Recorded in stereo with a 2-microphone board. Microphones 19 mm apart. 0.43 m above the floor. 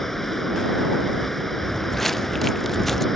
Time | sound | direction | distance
0.0 | running water | 20° left (ahead or behind) | ?
1.6 | footsteps | 10° left (ahead or behind) | ?